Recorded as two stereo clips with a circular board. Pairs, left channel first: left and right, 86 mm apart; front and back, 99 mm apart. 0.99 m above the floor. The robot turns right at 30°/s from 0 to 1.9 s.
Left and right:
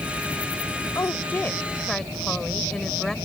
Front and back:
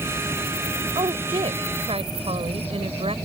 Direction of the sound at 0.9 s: 145° left.